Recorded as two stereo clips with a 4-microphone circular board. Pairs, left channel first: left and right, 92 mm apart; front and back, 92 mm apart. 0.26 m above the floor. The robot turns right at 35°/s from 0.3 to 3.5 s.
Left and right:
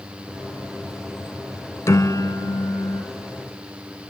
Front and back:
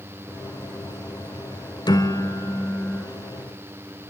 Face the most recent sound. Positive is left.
turn(degrees=90)